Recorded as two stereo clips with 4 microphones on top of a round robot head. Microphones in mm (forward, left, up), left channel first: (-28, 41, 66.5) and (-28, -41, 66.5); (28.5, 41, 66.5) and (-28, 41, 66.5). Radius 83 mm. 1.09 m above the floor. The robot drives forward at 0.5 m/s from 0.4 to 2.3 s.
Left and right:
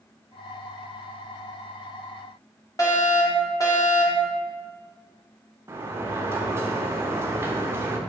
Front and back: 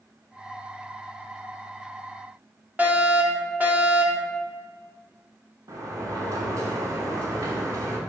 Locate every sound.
2.8 s a fire alarm: 125° left, 2.5 m
5.7 s a sliding door: 150° right, 1.2 m